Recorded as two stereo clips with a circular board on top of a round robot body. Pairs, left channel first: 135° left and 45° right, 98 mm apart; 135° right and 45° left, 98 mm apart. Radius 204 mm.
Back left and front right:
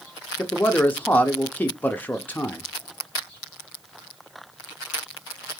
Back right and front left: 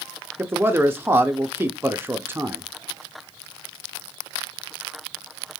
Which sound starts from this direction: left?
A man speaking, at 0.4 s.